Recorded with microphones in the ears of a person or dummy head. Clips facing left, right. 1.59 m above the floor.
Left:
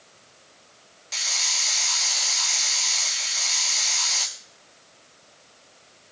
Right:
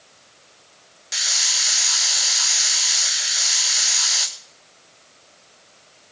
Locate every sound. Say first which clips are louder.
1.1 s a hiss: right 1 dB; 5° right (ahead or behind), 0.8 m